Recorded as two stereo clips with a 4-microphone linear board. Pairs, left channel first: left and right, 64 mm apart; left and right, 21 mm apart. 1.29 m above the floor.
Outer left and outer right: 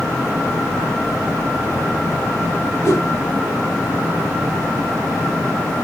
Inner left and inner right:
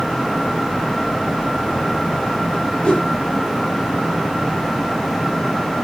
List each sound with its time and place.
2.8 s a whoosh: 45° left (ahead or behind), 8.5 m